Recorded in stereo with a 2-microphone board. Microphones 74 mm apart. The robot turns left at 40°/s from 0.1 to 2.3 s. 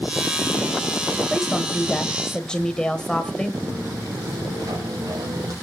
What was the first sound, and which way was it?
A woman speaking, 5° right (ahead or behind).